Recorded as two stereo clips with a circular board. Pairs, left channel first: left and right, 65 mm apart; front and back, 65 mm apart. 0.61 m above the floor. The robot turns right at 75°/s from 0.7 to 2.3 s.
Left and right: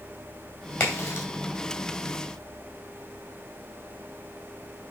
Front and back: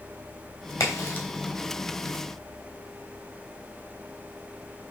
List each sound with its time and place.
0.8 s a crack: 30° left, 3 m; by 1.3 s 65° left, 3 m